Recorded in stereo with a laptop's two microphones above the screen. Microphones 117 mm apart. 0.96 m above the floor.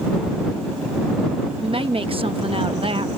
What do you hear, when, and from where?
1.6 s a woman speaking: 50° right (ahead or behind)